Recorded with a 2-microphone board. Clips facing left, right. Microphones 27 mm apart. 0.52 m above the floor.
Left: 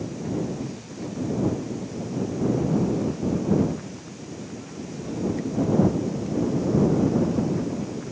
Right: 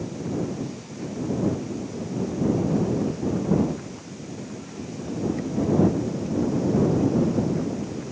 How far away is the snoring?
No snoring in this recording.